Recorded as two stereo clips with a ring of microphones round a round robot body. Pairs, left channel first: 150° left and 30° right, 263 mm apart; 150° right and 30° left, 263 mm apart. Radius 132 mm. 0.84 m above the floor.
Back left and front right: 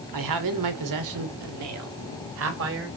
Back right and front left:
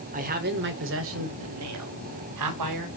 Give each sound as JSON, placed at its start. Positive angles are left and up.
{"t": 0.1, "sound": "a man speaking", "azimuth_deg": -30, "distance_m": 2.5}